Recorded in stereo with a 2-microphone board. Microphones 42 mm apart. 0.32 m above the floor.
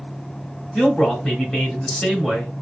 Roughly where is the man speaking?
Centre.